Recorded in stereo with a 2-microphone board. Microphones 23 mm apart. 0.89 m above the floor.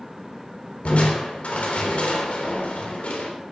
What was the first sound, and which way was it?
Crushing, 65° left (ahead or behind).